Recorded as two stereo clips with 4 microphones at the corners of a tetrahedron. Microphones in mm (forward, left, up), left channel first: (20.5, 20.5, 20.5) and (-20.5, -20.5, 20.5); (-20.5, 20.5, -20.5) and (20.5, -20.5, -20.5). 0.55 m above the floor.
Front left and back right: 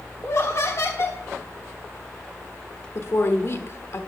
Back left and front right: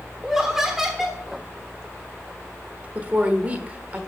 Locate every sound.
0.2 s laughter: 35° left, 1.1 m
3.0 s a woman speaking: 15° left, 1.2 m